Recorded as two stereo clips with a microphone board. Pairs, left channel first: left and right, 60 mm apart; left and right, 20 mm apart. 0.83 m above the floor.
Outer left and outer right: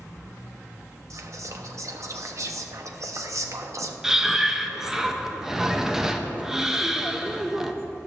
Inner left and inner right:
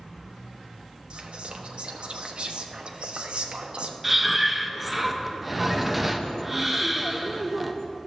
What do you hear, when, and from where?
1.1 s whispering: 60° right (ahead or behind), 0.9 m
4.0 s breathing: 10° right (ahead or behind), 0.6 m